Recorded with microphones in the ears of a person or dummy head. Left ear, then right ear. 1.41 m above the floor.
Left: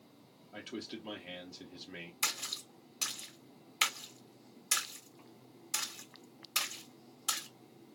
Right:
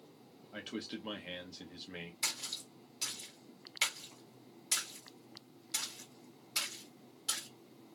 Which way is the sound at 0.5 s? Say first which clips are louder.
Right 1 dB; 10° right (ahead or behind).